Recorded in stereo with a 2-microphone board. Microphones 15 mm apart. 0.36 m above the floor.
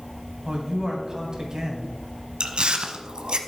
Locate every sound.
0.5 s a man speaking: 35° right (ahead or behind), 2.5 m
2.4 s chewing: 75° right (ahead or behind), 0.9 m